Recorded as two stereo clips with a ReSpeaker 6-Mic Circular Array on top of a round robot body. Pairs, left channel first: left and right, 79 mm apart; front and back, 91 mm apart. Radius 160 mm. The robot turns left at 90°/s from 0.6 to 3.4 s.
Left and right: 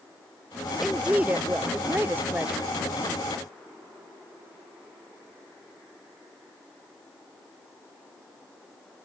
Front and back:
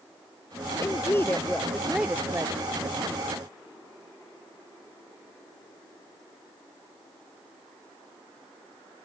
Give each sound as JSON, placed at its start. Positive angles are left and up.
{"t": 0.8, "sound": "a woman speaking", "azimuth_deg": -5}